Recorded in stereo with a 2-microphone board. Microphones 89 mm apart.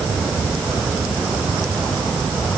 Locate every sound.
Only background noise.